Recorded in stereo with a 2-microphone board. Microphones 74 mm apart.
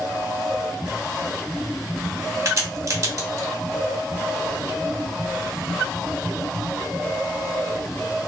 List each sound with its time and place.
2.5 s a crack: 45° right (ahead or behind), 2.0 m